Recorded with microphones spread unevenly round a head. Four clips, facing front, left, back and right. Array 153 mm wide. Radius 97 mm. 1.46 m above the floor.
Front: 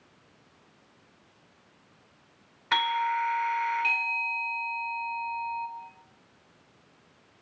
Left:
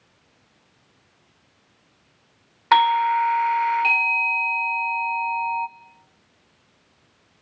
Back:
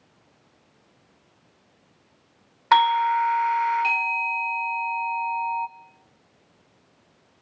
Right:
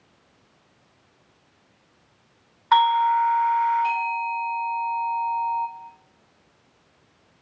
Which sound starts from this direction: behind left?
A doorbell, at 2.7 s.